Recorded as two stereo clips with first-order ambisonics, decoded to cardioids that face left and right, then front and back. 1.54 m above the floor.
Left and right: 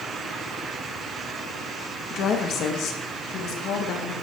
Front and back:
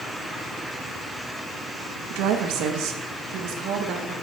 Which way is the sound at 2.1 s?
145° left.